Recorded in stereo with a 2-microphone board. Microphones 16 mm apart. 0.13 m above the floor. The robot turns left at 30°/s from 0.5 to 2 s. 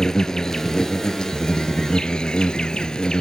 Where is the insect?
135° left, 0.9 m; by 3.2 s 90° left, 0.9 m.